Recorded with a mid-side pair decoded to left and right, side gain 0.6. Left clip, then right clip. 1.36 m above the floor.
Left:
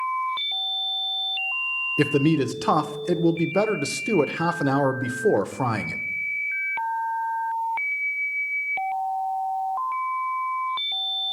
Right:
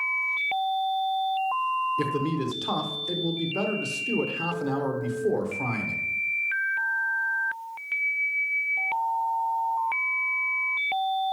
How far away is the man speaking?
About 0.8 m.